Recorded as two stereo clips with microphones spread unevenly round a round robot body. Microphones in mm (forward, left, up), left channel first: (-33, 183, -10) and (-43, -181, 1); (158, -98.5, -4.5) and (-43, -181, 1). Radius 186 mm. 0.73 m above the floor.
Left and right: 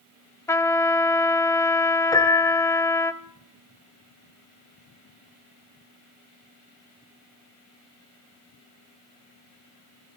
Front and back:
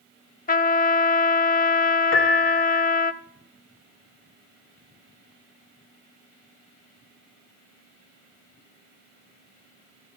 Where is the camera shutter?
No camera shutter in this recording.